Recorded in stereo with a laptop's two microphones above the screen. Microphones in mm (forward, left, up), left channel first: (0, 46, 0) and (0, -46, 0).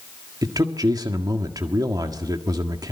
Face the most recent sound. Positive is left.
turn(degrees=-45)  # may be behind; listen again after turning